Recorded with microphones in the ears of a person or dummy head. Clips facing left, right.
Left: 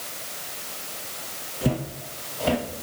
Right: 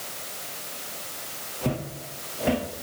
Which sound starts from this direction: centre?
Footsteps, at 1.6 s.